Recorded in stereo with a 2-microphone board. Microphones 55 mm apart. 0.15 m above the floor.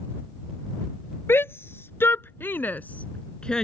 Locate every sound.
1.3 s a shout: 50° left (ahead or behind); by 3.6 s 10° left (ahead or behind)